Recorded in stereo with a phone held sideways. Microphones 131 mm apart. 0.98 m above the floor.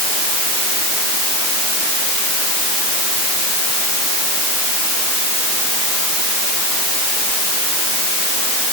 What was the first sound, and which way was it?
Only background noise.